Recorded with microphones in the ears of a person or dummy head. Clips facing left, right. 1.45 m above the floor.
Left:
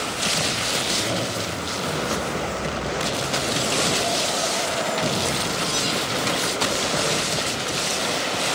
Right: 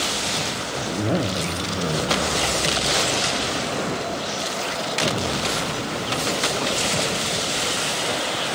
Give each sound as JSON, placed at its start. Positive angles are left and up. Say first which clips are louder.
{"t": 0.8, "sound": "a zipper", "louder": "right 6 dB", "side_deg": -30, "distance_m": 0.5}